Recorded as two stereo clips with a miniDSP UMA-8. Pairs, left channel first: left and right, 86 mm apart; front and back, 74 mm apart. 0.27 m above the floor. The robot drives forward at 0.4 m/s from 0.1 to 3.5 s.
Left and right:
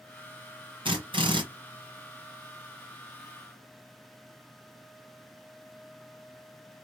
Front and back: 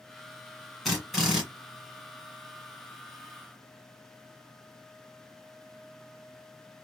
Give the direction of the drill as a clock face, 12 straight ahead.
3 o'clock.